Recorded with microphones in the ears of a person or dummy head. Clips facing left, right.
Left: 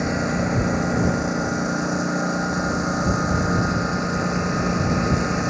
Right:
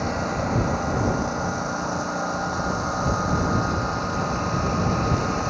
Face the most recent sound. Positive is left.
turn(degrees=25)  # may be behind; listen again after turning